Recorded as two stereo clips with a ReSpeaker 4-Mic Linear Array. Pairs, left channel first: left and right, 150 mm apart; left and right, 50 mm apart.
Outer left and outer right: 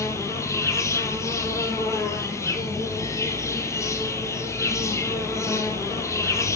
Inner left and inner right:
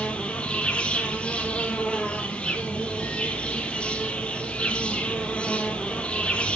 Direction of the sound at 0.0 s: 20° left (ahead or behind).